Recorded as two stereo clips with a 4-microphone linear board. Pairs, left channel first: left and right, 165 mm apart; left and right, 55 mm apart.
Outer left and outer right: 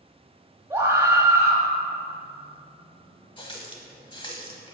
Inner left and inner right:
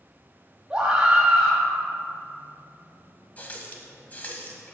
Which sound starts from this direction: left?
A running tap, at 3.4 s.